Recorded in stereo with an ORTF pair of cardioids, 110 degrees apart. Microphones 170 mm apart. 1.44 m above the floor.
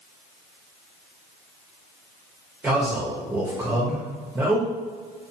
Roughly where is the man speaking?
Ahead.